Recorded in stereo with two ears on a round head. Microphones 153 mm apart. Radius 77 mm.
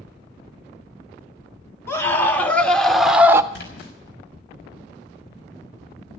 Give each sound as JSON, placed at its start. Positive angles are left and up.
{"t": 1.9, "sound": "a scream", "side_deg": 15, "distance_m": 2.5}
{"t": 3.5, "sound": "a splash", "side_deg": 65, "distance_m": 5.5}